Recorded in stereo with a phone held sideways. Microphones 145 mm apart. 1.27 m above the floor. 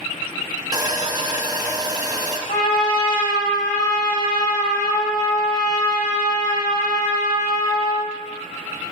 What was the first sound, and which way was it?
Sawing, 25° right (ahead or behind).